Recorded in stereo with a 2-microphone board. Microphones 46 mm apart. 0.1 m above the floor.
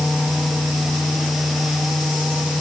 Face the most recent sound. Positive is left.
No sound to turn to.